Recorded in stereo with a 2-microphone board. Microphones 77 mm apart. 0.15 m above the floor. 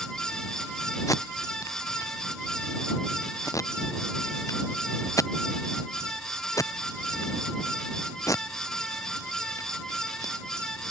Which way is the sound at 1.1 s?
45° left (ahead or behind).